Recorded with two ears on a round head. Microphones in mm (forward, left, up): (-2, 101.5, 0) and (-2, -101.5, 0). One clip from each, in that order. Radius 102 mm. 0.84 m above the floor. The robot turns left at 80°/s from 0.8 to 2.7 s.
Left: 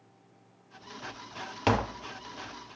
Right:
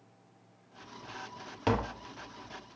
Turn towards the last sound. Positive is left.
turn(degrees=-30)